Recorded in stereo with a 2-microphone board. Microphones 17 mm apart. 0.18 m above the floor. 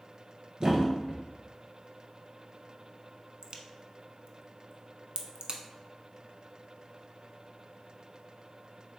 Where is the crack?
50° right (ahead or behind), 0.6 m.